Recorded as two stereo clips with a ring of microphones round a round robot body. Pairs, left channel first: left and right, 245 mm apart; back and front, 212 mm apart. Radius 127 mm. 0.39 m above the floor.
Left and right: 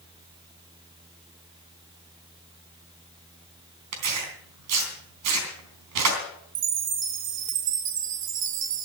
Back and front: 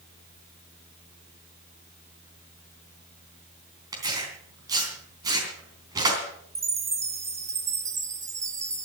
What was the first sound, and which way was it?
Tearing paper, 75° right.